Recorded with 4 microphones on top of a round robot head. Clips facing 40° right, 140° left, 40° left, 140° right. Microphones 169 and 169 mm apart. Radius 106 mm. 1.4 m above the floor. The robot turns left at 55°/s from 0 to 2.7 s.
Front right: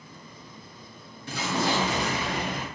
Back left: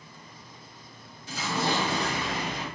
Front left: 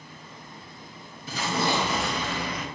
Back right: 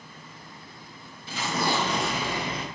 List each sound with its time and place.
1.3 s an explosion: 5° right, 0.9 m; by 2.6 s 85° right, 0.9 m